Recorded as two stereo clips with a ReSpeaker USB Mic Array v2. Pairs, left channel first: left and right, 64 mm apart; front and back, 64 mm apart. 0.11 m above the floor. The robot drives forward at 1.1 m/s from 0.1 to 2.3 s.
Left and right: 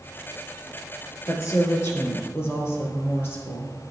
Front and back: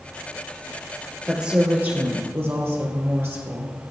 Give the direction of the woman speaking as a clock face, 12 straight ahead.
9 o'clock.